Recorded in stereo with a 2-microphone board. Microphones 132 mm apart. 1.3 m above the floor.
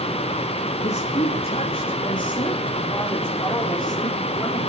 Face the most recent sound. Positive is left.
turn(degrees=20)  # may be behind; listen again after turning